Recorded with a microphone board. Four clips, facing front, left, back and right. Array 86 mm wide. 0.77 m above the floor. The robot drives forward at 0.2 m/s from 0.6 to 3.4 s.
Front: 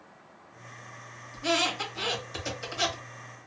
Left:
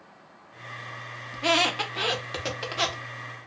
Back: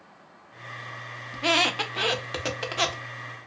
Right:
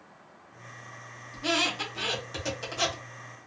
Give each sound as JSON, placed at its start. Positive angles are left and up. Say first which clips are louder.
{"t": 1.3, "sound": "a squeak", "louder": "left 5 dB, back 3 dB", "azimuth_deg": 145, "distance_m": 0.5}